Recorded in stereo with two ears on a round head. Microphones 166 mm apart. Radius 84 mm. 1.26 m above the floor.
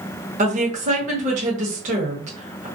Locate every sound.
0.4 s a woman speaking: 40° right (ahead or behind), 1.0 m